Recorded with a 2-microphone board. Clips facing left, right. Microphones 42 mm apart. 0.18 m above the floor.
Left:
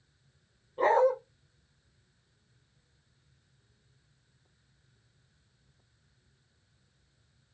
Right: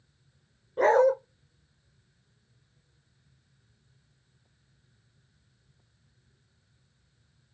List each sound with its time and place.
0.8 s a dog barking: 75° right (ahead or behind), 3 m